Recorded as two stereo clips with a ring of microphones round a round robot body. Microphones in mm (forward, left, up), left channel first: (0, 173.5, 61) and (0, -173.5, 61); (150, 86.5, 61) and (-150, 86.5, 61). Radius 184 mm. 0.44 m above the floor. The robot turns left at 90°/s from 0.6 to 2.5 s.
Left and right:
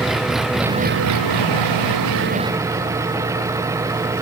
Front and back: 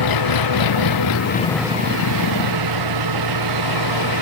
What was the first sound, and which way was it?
An engine running, straight ahead.